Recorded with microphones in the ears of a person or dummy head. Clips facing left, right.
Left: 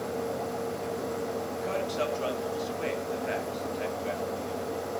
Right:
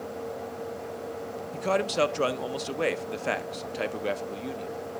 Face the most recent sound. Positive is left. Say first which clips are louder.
# right 8 dB
turn(degrees=-70)  # may be behind; listen again after turning